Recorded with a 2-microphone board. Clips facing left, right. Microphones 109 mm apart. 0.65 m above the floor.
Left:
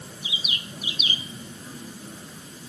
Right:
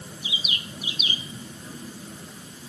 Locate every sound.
Only background noise.